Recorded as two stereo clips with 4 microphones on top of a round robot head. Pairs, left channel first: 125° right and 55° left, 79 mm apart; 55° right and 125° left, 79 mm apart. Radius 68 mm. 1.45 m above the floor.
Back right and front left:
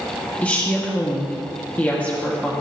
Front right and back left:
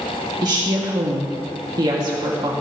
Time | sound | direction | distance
0.4 | a woman speaking | 165° left | 2.5 m